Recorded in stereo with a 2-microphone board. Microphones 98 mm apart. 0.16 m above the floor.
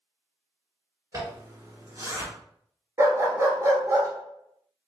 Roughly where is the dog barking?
Right.